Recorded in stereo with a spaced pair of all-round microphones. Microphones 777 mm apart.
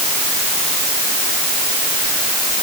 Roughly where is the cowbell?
I don't hear a cowbell.